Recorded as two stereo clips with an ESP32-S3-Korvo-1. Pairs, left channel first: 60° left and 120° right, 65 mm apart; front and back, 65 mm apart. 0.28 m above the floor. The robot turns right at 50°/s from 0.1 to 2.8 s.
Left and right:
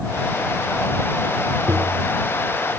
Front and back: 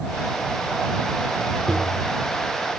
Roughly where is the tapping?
Right.